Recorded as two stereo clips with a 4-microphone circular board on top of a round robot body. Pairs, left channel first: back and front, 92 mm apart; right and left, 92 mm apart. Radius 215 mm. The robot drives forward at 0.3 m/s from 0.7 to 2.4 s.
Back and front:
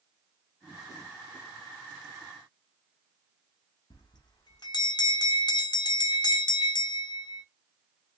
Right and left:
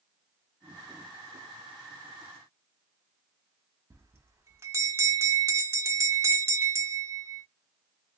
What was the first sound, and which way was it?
A bell, 150° left.